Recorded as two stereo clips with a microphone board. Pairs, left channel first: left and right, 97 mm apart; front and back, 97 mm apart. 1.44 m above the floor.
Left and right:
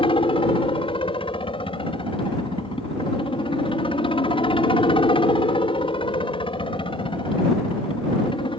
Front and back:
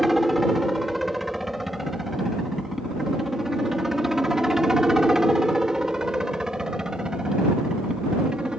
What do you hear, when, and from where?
0.0 s a helicopter: 90° left; by 8.6 s 100° left